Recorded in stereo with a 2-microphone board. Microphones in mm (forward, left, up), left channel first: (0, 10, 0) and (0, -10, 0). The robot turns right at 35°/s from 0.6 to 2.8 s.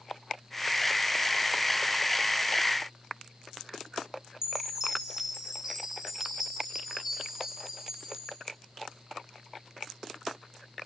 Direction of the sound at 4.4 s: 30° right (ahead or behind).